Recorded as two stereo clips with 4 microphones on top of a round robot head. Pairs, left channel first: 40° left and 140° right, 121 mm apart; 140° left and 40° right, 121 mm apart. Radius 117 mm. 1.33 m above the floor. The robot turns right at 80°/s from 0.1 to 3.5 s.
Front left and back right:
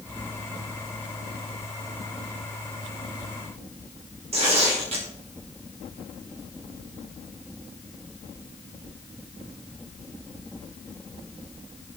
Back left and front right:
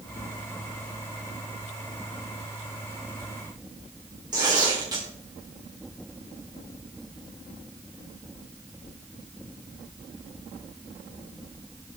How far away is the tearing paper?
About 4.5 m.